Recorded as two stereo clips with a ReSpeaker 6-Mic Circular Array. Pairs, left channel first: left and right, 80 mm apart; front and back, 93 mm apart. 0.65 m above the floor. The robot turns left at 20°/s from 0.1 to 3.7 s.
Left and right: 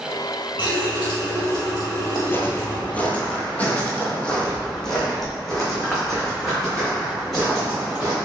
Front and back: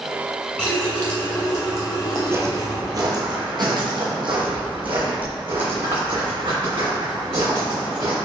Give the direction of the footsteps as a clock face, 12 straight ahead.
8 o'clock.